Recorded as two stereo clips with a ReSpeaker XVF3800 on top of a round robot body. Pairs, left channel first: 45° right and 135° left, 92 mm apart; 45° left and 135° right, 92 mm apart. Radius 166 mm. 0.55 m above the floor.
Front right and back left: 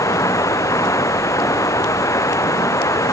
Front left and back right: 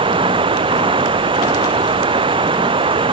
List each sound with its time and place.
0.0 s running water: 105° right